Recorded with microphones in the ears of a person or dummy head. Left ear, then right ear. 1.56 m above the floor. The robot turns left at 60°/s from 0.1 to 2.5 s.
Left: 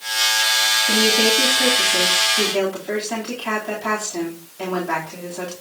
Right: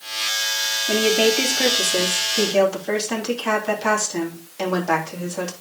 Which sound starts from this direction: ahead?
A woman speaking, at 0.9 s.